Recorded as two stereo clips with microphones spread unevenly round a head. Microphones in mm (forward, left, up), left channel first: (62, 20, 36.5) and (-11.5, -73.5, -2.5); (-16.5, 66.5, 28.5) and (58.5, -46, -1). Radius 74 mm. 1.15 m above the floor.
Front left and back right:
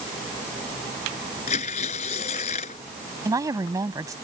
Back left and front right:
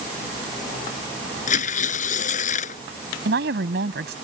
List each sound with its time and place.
1.5 s tearing paper: 95° left
3.2 s a woman speaking: 65° right